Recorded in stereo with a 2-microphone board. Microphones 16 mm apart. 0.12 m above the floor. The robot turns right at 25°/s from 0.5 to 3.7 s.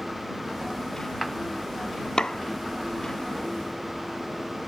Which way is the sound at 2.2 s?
50° left (ahead or behind).